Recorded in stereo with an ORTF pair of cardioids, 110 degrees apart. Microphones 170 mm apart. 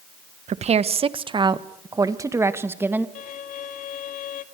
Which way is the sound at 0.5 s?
45° right.